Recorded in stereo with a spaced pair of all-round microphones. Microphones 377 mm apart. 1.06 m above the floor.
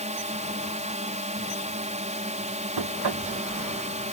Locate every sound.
0.0 s a drone: 20° right (ahead or behind)
2.8 s knocking: 75° right (ahead or behind)